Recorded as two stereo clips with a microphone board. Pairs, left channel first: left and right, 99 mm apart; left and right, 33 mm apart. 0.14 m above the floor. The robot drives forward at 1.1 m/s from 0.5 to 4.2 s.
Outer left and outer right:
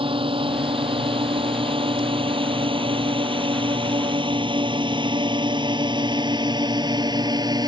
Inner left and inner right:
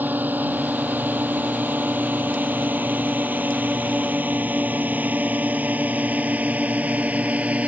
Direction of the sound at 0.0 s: 70° right (ahead or behind).